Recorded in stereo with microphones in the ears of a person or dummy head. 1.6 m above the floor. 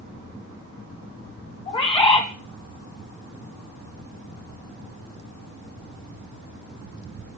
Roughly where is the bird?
Left.